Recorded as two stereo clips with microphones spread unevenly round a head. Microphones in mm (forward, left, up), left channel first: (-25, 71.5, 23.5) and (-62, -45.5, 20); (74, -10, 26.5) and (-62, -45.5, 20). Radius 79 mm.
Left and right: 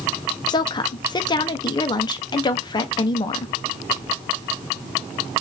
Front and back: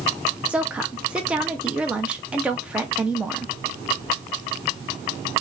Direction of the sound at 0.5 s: 115° left.